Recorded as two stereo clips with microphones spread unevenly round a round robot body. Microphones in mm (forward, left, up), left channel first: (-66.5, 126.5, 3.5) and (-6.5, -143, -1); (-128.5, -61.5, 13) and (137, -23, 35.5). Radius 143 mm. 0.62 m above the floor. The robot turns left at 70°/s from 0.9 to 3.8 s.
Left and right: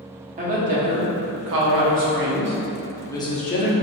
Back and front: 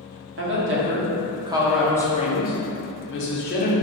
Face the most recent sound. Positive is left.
turn(degrees=135)